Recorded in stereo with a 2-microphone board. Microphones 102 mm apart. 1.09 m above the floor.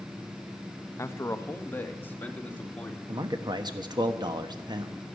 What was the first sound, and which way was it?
A man speaking, 25° left (ahead or behind).